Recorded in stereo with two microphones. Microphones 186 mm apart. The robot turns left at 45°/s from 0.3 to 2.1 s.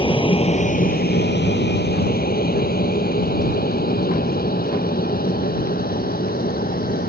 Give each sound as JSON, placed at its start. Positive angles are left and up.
{"t": 0.0, "sound": "an aircraft", "side_deg": 25}